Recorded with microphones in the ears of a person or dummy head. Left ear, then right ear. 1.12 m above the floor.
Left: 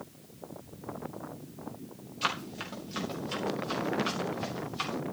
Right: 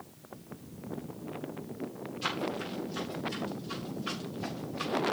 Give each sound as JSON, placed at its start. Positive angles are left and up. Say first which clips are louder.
{"t": 2.2, "sound": "running footsteps", "louder": "left 1 dB", "side_deg": 50, "distance_m": 10.0}